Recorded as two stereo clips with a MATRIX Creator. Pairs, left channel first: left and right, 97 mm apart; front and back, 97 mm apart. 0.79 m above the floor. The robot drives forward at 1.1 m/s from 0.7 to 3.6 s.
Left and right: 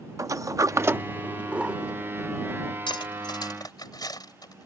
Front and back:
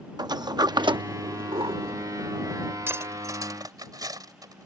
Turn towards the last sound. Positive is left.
turn(degrees=135)